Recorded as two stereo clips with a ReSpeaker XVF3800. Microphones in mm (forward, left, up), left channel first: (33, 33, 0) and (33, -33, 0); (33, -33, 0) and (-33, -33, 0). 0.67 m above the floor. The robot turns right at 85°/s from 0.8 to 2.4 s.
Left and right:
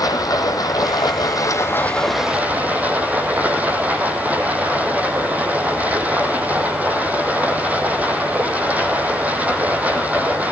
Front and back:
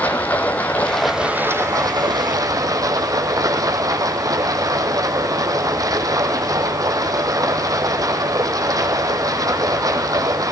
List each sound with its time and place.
0.0 s running water: 65° left, 3 m; by 10.5 s 155° right, 3 m